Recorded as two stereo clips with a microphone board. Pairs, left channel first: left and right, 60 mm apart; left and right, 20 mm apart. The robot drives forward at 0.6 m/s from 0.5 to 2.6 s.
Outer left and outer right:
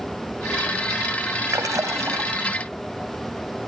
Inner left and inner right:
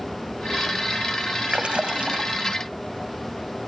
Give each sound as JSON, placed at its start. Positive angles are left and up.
{"t": 1.5, "sound": "a splash", "side_deg": -80, "distance_m": 0.8}